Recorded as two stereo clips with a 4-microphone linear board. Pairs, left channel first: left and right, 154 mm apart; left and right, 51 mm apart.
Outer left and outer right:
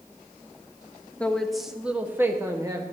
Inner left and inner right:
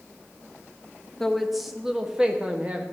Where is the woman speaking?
10° left (ahead or behind), 1.1 m; by 2.8 s 25° right (ahead or behind), 1.5 m.